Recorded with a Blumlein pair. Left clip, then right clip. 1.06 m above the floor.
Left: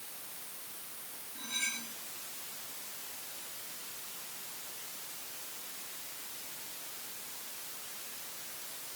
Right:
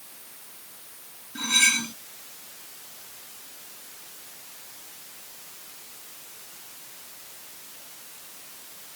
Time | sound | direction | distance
1.4 | cutlery clinking | 35° right | ?